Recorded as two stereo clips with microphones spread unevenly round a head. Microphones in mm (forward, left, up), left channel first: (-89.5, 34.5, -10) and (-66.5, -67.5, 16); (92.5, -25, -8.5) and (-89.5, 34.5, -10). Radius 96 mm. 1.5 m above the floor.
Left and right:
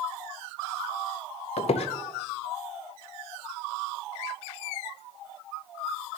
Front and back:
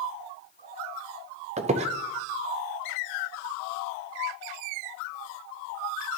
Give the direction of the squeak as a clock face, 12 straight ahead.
8 o'clock.